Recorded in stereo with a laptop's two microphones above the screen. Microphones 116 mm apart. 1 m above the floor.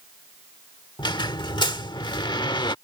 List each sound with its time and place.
1.0 s a squeak: 40° left (ahead or behind)